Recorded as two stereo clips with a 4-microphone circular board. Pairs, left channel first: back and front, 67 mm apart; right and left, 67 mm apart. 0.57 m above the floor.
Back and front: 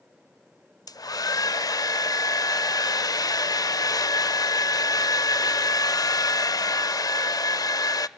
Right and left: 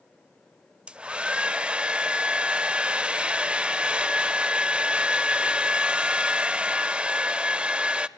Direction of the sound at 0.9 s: 165° left.